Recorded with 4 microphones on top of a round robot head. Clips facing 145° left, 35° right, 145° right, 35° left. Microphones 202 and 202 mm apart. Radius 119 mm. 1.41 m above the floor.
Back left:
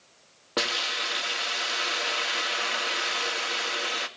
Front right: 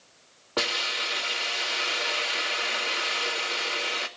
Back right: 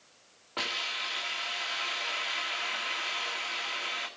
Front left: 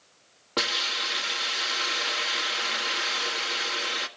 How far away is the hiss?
About 2 m.